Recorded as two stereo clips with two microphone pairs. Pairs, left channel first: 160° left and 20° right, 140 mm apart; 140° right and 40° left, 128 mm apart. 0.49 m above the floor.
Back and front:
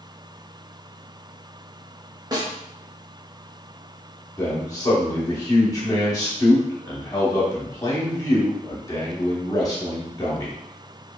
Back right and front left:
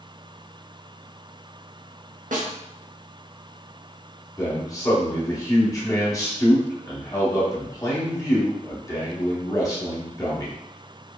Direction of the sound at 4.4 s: 165° right.